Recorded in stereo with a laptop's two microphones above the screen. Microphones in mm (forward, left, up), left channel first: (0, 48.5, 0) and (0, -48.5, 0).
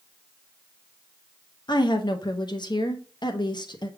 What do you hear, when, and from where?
1.7 s a woman speaking: 50° left (ahead or behind), 0.7 m